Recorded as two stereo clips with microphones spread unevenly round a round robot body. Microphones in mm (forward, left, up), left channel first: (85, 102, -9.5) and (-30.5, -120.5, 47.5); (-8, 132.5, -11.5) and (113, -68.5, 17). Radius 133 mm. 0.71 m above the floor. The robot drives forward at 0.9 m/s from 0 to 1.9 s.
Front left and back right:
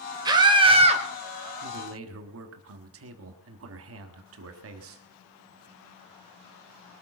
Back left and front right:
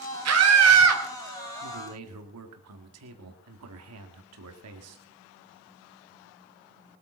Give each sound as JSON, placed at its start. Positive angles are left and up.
{"t": 0.2, "sound": "a scream", "azimuth_deg": -40, "distance_m": 3.0}
{"t": 1.6, "sound": "a man speaking", "azimuth_deg": -70, "distance_m": 1.7}